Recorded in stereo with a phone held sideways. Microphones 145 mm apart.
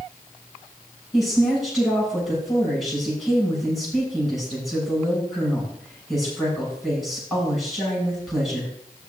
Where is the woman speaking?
Centre (ahead or behind), 8 m.